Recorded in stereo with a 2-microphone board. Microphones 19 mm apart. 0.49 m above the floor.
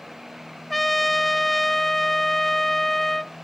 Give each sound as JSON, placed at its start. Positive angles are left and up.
{"t": 0.7, "sound": "a trumpet", "side_deg": 10, "distance_m": 0.5}